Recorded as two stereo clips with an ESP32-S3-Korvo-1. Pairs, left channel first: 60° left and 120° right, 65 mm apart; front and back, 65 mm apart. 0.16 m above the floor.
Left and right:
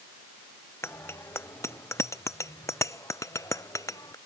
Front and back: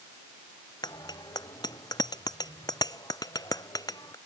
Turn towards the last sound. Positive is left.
turn(degrees=25)